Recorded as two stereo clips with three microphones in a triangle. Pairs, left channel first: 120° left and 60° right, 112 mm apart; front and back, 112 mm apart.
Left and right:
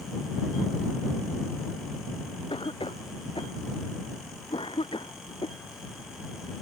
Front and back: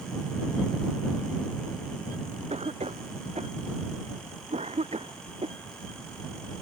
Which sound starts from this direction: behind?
A cough, at 2.5 s.